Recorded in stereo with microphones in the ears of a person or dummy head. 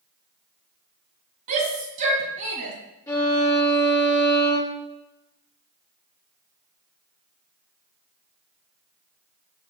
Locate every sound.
1.5 s a shout: 40° right (ahead or behind), 2 m
3.1 s a violin: 5° left (ahead or behind), 3.5 m